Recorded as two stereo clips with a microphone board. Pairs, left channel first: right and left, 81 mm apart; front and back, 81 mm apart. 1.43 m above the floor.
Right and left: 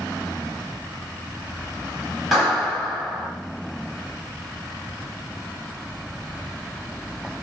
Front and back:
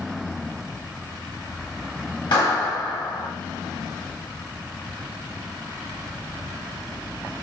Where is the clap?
5° right, 1.9 m.